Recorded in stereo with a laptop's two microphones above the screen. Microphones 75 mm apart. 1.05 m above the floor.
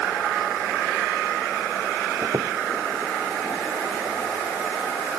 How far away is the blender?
No blender in this recording.